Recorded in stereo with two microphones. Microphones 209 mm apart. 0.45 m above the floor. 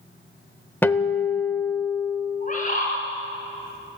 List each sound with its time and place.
0.8 s a guitar: 10° left (ahead or behind), 0.9 m
2.4 s a bird: 40° left (ahead or behind), 5 m